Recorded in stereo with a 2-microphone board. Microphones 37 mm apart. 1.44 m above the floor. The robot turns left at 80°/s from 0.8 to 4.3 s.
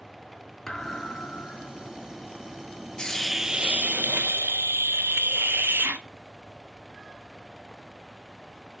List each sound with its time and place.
0.7 s a thud: 165° left, 4 m; by 1.9 s 70° left, 4 m
3.0 s a hiss: 25° left, 1.4 m; by 6.0 s 80° right, 1.4 m